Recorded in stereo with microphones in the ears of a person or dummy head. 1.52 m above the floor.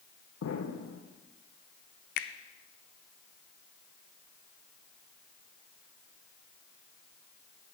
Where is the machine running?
I don't hear a machine running.